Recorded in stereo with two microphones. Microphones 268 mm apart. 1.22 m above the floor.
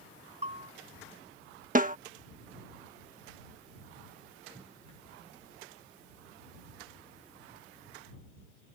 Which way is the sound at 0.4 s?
25° right (ahead or behind).